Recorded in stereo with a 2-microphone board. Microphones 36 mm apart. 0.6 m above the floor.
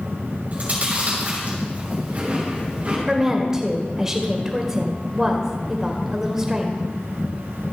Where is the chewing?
40° right (ahead or behind), 5.5 m.